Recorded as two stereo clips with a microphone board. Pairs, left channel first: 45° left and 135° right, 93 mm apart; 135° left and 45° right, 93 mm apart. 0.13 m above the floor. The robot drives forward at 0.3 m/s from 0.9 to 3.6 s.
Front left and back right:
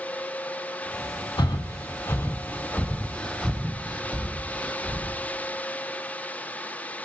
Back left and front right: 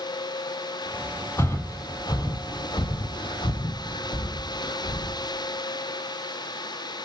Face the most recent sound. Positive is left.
turn(degrees=135)